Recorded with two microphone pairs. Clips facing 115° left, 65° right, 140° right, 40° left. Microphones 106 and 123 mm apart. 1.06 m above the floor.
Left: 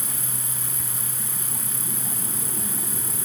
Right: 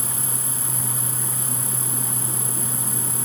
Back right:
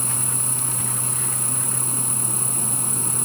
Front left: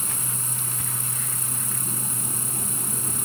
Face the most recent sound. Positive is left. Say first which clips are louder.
# right 4 dB, back right 4 dB
turn(degrees=-65)